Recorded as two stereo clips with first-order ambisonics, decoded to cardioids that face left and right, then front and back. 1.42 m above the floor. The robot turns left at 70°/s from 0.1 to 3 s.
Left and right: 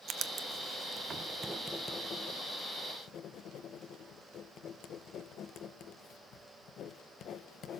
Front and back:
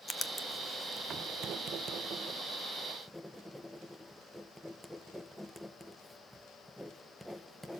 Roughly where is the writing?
Ahead right.